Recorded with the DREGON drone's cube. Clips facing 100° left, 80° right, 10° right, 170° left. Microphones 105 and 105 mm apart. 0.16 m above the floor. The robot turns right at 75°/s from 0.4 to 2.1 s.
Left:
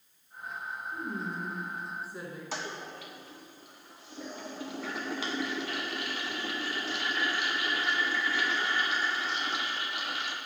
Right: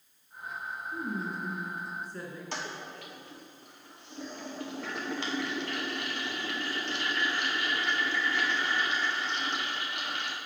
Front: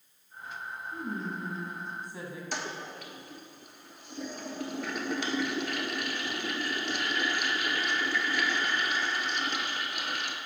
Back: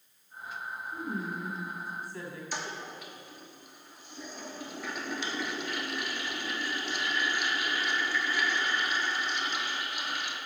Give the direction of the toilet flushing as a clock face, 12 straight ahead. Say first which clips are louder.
Left 1 dB, front 1 dB; 12 o'clock.